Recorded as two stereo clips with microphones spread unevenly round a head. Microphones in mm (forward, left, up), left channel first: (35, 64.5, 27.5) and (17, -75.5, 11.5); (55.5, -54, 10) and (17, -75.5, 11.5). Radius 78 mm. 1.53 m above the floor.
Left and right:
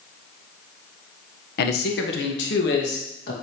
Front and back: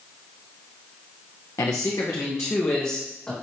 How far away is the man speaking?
About 1.3 m.